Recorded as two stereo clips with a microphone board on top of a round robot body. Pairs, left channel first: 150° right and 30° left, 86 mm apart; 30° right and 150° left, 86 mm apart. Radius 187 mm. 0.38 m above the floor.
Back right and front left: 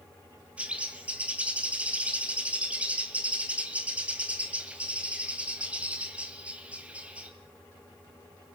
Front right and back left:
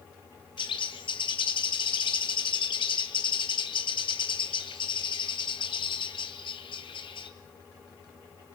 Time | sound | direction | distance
0.6 | a bird | 45° right | 2 m